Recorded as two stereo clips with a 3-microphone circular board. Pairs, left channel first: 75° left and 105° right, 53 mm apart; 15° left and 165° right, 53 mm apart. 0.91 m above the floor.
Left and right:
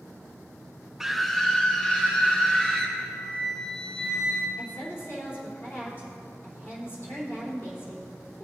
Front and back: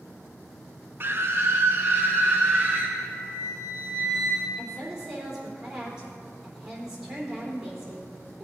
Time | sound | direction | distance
1.0 | a scream | 175° left | 0.6 m
3.0 | a flute | 150° left | 2 m
4.6 | a woman speaking | 120° left | 3 m